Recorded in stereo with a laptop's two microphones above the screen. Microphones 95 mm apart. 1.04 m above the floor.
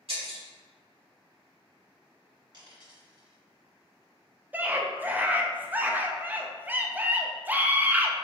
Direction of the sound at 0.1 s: 70° right (ahead or behind).